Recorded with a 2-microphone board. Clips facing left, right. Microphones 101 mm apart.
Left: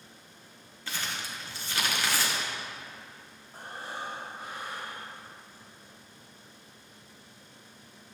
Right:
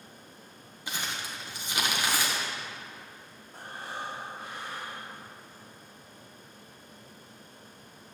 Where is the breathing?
5° left (ahead or behind), 4 m.